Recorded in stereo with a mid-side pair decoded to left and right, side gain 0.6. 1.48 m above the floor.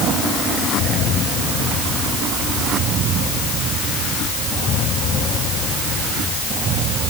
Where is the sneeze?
No sneeze in this recording.